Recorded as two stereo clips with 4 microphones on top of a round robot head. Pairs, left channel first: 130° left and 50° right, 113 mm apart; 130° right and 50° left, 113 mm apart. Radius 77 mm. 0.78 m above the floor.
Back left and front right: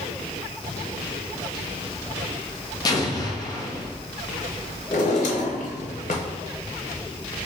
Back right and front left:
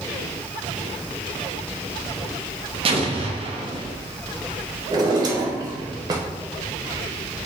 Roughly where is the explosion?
Left.